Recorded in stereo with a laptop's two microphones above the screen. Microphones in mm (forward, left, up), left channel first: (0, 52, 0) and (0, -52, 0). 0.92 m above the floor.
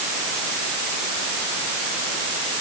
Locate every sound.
Only background noise.